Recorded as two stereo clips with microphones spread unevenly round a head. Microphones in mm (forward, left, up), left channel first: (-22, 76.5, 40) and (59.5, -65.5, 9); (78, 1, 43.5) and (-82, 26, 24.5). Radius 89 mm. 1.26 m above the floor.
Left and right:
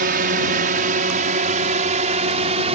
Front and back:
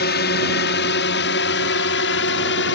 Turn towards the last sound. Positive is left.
turn(degrees=-10)